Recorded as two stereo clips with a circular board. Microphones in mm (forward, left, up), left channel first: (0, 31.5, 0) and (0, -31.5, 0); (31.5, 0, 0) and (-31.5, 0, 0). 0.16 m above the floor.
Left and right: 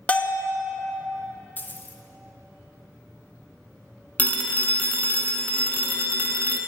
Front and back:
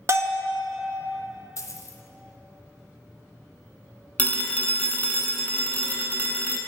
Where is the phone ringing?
50° left, 0.7 m.